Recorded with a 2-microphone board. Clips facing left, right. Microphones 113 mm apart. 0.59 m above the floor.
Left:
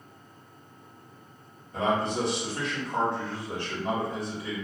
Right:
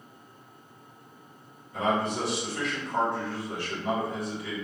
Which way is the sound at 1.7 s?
35° left (ahead or behind).